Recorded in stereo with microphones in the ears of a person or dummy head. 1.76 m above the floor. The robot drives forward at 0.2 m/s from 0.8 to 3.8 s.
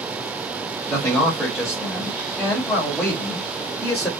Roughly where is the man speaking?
Centre.